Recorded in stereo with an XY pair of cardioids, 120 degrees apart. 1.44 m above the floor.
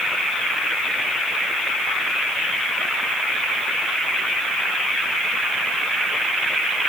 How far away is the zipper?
No zipper in this recording.